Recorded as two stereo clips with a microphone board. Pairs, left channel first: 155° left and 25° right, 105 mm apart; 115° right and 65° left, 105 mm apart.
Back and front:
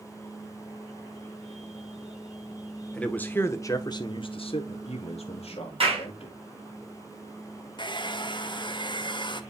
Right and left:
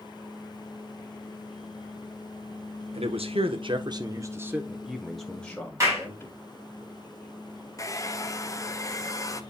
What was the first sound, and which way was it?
A man speaking, 75° left.